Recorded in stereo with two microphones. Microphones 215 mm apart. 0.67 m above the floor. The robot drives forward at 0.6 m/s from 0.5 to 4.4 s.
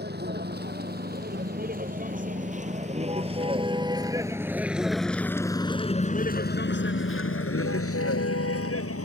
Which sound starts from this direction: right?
A vehicle, at 0.0 s.